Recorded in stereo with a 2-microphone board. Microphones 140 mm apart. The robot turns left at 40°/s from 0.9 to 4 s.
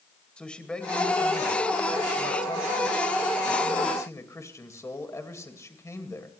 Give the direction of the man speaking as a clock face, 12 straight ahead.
6 o'clock.